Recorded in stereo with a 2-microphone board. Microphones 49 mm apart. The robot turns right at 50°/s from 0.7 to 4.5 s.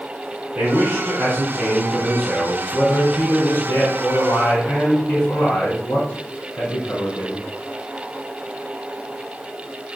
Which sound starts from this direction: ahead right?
A man speaking, at 0.6 s.